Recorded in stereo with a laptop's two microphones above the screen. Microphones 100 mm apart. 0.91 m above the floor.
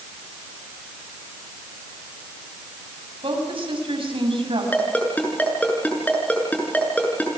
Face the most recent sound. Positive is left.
turn(degrees=15)  # may be behind; listen again after turning